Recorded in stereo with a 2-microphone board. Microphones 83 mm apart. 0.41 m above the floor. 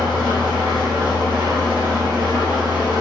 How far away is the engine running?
About 1.8 m.